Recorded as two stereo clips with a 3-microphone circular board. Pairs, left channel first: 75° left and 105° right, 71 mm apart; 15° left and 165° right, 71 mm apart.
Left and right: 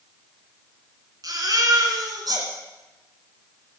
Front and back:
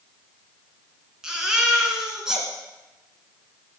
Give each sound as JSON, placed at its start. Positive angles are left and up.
{"t": 1.2, "sound": "a baby crying", "azimuth_deg": -85, "distance_m": 2.5}